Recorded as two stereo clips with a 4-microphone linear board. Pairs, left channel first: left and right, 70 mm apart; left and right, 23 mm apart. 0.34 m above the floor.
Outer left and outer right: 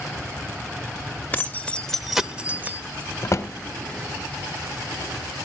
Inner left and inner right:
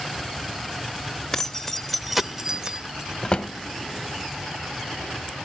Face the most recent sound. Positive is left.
turn(degrees=45)  # may be behind; listen again after turning